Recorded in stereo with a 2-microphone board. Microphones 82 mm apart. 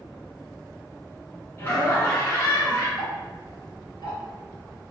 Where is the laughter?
30° left (ahead or behind), 1.3 m.